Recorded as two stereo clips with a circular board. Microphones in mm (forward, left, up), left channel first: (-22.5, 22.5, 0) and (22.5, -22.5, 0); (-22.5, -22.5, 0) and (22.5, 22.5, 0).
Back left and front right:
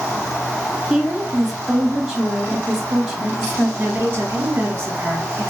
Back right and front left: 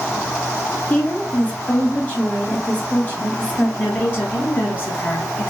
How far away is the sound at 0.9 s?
About 1.6 m.